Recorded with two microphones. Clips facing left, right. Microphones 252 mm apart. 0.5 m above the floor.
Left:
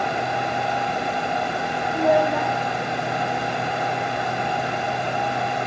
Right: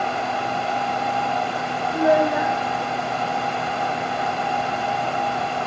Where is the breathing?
No breathing in this recording.